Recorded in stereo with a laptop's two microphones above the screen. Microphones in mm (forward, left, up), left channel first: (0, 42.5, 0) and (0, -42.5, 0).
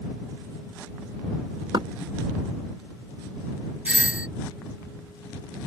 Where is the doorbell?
15° right (ahead or behind).